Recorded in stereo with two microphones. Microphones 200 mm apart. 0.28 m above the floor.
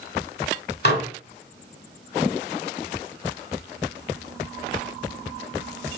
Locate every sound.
0.8 s dishes clattering: 55° left (ahead or behind), 1.2 m